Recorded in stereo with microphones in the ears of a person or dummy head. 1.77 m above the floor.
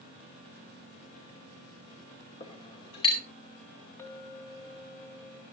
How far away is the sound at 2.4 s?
About 2.5 m.